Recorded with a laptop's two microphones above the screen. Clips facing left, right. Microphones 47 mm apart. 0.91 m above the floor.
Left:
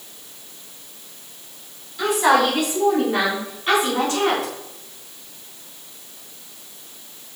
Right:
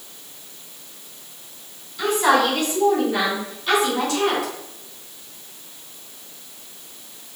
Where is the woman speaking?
10° left (ahead or behind), 3.5 m; by 4.5 s 45° left (ahead or behind), 2.5 m.